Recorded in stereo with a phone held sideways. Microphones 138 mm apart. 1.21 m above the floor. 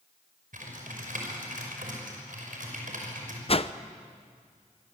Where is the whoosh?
45° left (ahead or behind), 0.7 m.